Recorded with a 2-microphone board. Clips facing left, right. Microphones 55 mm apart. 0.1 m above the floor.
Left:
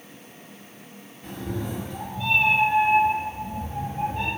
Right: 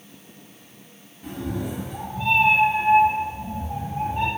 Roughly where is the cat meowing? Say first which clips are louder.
Right 2 dB; centre.